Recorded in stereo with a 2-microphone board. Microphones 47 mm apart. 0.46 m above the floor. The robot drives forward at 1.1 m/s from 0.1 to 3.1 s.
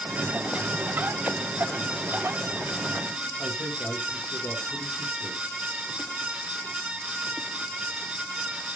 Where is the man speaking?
55° left (ahead or behind), 8.5 m.